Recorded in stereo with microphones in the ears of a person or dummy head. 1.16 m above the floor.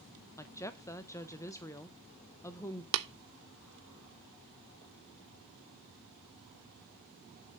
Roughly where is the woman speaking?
Centre.